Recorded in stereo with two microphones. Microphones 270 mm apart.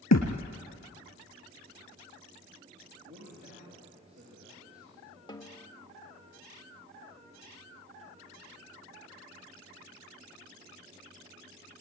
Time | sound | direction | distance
0.1 | a thud | 65° left (ahead or behind) | 3 m
3.0 | a man speaking | 75° right (ahead or behind) | 8.5 m
5.3 | a snare drum | 15° left (ahead or behind) | 1.6 m